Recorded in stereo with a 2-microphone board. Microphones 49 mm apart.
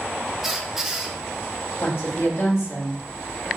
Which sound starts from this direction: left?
A woman speaking, at 1.8 s.